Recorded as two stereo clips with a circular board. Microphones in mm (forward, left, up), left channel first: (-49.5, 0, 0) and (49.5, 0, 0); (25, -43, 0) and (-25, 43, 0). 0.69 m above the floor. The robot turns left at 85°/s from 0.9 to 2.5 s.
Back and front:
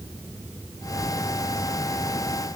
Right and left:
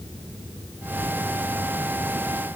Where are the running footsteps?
I don't hear running footsteps.